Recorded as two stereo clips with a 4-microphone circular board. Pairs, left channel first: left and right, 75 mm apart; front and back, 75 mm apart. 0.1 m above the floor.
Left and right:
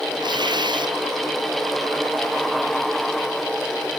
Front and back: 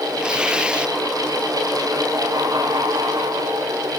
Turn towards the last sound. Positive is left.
turn(degrees=-100)